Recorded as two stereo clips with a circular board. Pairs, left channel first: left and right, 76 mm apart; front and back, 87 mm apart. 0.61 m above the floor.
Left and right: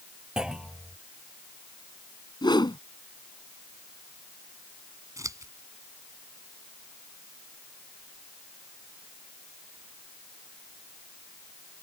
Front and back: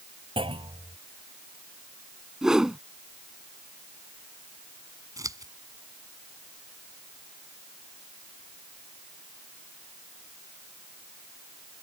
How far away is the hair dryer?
I don't hear a hair dryer.